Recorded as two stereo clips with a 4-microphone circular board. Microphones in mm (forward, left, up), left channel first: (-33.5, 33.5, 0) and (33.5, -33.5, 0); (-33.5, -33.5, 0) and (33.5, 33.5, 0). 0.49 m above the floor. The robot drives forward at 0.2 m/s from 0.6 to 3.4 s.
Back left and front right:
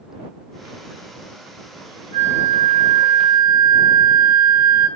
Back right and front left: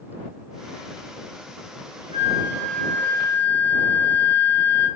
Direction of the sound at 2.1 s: 80° left.